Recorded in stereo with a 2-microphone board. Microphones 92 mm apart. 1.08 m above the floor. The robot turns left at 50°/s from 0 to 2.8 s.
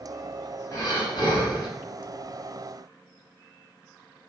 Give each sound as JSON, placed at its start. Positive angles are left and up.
{"t": 0.7, "sound": "breathing", "azimuth_deg": 130, "distance_m": 1.9}